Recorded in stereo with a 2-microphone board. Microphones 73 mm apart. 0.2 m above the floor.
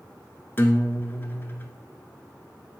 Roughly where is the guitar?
Left.